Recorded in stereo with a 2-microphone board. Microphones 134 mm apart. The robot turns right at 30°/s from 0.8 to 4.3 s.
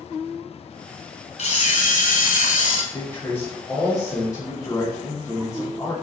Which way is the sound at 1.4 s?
60° left.